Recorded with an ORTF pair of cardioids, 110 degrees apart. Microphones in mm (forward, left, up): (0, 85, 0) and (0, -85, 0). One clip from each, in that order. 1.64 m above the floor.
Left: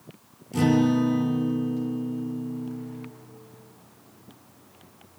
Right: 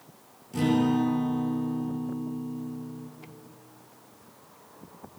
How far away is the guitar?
About 8 m.